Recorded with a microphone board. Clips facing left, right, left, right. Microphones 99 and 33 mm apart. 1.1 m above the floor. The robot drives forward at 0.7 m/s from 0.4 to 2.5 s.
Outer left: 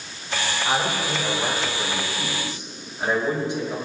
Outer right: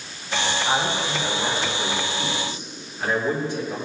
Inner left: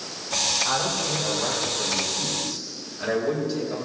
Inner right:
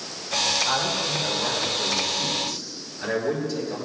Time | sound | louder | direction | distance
0.7 | a man speaking | outer left 3 dB, inner right 1 dB | 25° left (ahead or behind) | 4.5 m